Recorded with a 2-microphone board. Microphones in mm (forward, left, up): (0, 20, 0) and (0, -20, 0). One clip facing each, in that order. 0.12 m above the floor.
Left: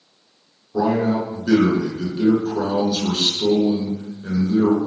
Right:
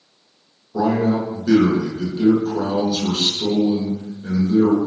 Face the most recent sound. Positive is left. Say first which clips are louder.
# right 1 dB
turn(degrees=15)  # may be behind; listen again after turning